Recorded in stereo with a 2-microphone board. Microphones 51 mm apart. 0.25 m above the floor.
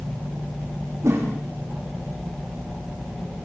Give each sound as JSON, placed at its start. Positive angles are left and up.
{"t": 1.0, "sound": "a whoosh", "side_deg": -60, "distance_m": 8.0}